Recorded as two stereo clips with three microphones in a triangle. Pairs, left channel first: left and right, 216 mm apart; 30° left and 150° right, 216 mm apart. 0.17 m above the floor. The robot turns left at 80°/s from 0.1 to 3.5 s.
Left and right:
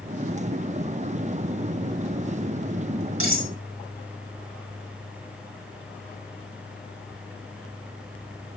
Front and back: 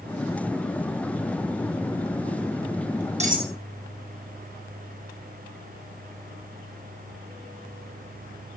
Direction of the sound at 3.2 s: 90° right.